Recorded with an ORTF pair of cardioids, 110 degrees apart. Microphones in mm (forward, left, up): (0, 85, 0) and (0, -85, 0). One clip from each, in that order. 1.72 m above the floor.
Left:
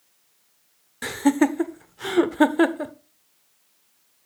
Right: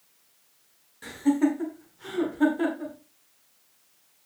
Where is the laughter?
70° left, 0.8 m.